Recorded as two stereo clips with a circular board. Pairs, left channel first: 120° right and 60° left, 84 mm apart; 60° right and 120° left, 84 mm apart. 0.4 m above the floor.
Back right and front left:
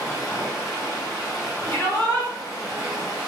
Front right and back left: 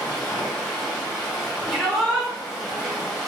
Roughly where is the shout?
Behind right.